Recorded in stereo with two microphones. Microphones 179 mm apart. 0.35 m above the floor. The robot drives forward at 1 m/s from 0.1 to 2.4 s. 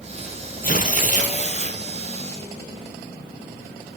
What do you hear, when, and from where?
0.6 s tearing paper: 55° left (ahead or behind), 3 m; by 1.8 s 40° left (ahead or behind), 3.5 m